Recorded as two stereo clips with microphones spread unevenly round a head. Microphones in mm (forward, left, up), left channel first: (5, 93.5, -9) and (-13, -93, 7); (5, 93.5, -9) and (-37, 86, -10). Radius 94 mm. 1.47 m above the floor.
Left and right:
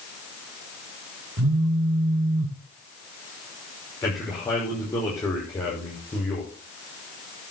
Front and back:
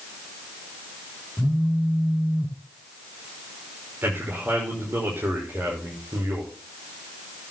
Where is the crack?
No crack in this recording.